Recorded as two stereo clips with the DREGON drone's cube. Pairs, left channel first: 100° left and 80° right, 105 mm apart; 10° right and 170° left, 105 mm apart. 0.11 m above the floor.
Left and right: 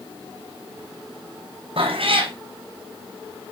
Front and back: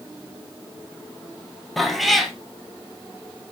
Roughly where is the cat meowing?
Right.